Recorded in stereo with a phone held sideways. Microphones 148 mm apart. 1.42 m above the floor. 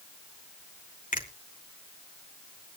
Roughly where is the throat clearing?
I don't hear throat clearing.